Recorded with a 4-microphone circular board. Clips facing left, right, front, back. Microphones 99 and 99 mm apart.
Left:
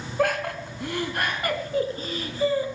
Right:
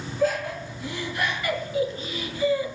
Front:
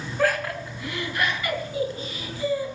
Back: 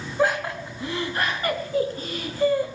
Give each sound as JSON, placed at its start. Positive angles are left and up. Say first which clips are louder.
{"t": 0.2, "sound": "laughter", "louder": "even, back 1 dB", "azimuth_deg": 110, "distance_m": 3.0}